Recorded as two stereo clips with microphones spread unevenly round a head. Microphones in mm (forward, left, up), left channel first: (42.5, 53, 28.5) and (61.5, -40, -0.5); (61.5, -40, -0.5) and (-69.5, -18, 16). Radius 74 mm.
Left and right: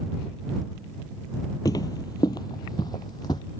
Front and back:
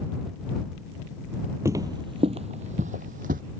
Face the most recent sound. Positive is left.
turn(degrees=155)